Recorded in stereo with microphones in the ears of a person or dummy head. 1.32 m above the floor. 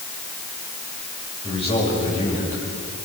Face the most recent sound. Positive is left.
turn(degrees=35)  # may be behind; listen again after turning